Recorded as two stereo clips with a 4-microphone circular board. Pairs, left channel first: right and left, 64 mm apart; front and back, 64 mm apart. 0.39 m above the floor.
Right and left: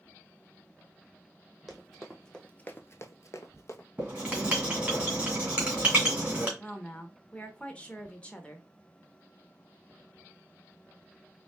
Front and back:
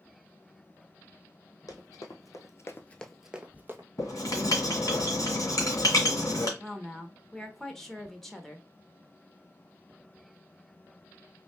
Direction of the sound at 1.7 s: Straight ahead.